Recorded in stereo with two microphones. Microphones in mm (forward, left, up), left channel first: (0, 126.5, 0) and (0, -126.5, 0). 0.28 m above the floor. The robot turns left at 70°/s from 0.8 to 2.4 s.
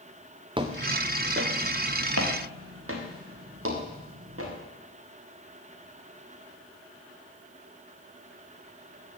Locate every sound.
0.6 s footsteps: 20° right (ahead or behind), 1.8 m; by 4.5 s 65° right (ahead or behind), 5 m